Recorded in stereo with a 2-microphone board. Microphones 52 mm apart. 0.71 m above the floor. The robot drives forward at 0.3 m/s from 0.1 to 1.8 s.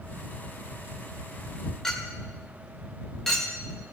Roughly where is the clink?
Centre.